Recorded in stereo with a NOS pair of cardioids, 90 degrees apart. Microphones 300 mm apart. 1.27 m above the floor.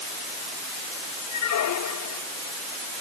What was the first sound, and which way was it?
A squeak, 70° left.